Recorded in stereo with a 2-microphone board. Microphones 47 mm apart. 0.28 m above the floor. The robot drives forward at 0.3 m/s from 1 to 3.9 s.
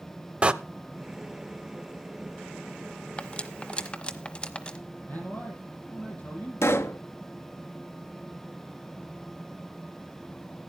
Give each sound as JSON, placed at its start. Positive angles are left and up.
{"t": 0.4, "sound": "a door slam", "side_deg": -25, "distance_m": 0.6}
{"t": 3.2, "sound": "cutlery clinking", "side_deg": 30, "distance_m": 0.9}
{"t": 5.1, "sound": "a man speaking", "side_deg": 35, "distance_m": 9.5}
{"t": 6.6, "sound": "a pop", "side_deg": 65, "distance_m": 0.8}